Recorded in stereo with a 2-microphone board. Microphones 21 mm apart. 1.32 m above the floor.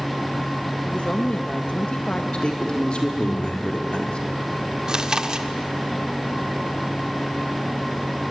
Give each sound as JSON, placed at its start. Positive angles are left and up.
{"t": 0.8, "sound": "a woman speaking", "side_deg": 60, "distance_m": 1.8}
{"t": 2.3, "sound": "a man speaking", "side_deg": 50, "distance_m": 4.5}
{"t": 4.9, "sound": "chewing", "side_deg": -40, "distance_m": 1.5}